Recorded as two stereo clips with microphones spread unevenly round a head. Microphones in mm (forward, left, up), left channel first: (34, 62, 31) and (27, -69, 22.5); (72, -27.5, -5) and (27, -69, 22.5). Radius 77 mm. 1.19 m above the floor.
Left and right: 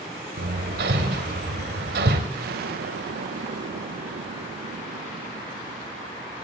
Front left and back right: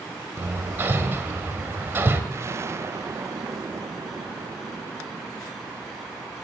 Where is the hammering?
110° right, 1.8 m.